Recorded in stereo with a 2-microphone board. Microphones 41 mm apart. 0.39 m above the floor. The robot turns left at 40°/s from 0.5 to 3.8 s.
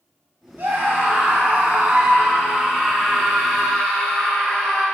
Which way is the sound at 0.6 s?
90° right.